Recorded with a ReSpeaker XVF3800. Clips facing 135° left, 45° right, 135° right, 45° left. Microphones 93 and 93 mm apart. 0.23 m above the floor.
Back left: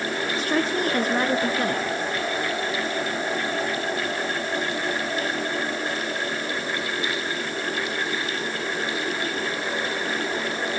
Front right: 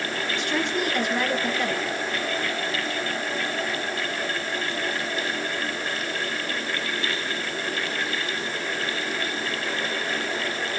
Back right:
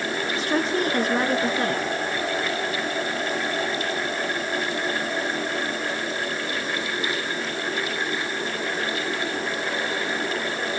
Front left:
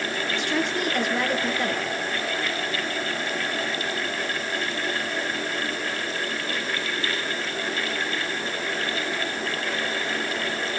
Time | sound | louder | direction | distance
0.3 | a woman speaking | back left 2 dB, back right 3 dB | straight behind | 3.5 m